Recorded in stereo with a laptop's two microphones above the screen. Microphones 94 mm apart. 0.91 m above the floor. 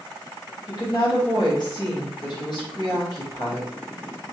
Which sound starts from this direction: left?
A woman speaking, at 0.7 s.